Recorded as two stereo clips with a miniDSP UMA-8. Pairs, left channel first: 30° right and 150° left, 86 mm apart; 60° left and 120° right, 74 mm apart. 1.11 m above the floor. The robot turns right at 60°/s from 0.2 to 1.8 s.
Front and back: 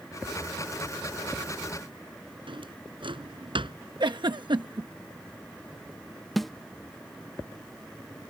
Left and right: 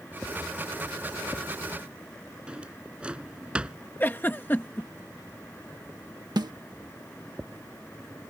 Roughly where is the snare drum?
Behind right.